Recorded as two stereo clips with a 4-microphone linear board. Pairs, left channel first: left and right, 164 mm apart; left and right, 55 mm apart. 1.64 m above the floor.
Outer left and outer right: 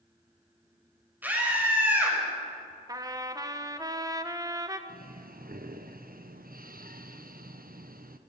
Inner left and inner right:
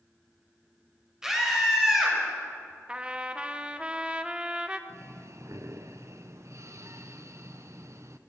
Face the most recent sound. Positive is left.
turn(degrees=-60)  # may be behind; listen again after turning